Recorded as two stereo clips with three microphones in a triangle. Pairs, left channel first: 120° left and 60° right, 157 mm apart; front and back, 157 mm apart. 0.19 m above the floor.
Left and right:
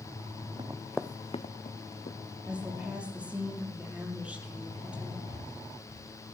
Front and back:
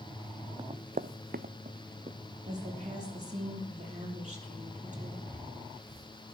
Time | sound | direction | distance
0.6 | running footsteps | 120° right | 0.8 m
2.5 | a woman speaking | 140° right | 5.5 m
5.3 | breathing | 120° right | 8.5 m